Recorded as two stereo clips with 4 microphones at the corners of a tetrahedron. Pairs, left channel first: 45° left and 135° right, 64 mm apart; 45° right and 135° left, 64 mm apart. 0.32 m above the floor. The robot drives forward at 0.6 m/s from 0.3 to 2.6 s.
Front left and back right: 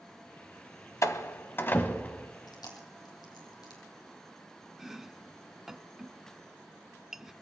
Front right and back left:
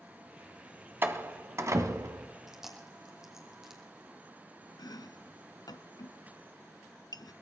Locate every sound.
1.0 s a door slam: 80° left, 1.3 m; by 2.3 s 115° left, 1.4 m
2.5 s chewing: 50° left, 3 m
4.8 s chopping: 50° right, 0.5 m